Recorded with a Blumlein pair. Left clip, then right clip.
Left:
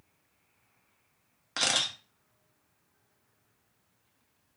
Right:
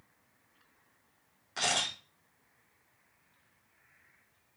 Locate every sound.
1.6 s a camera shutter: 60° left, 1.4 m